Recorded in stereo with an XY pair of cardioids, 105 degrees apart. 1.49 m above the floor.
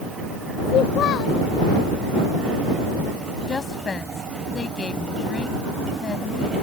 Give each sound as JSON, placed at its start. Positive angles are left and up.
{"t": 0.7, "sound": "a child speaking", "azimuth_deg": 70}
{"t": 3.5, "sound": "a woman speaking", "azimuth_deg": 35}